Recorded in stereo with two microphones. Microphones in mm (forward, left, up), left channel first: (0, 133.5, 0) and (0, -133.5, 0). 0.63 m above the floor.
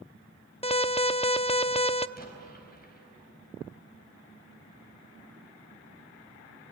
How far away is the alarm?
About 0.5 m.